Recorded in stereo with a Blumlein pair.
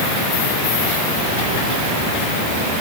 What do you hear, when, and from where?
Only background noise.